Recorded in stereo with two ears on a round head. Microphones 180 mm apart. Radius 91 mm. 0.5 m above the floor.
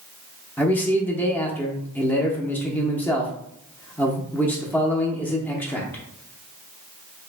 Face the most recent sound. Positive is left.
turn(degrees=10)  # may be behind; listen again after turning